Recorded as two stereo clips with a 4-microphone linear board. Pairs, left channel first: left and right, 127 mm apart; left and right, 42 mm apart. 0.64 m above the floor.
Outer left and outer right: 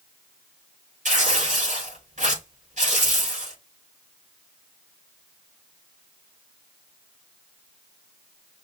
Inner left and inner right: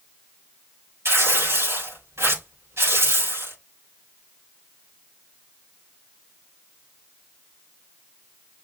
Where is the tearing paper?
80° right, 5 m.